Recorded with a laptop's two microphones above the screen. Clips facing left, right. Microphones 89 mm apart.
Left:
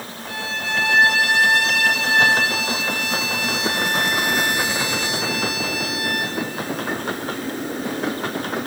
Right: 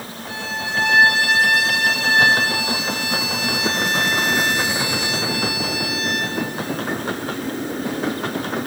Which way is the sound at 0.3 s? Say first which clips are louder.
Even; 20° right (ahead or behind).